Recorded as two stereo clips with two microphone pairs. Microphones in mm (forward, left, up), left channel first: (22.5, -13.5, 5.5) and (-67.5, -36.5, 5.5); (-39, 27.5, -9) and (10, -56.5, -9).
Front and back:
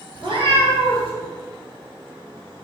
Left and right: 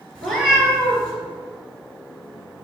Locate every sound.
0.1 s a cat meowing: 155° right, 1.8 m